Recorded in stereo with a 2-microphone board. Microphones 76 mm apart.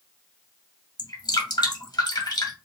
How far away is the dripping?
About 2.0 m.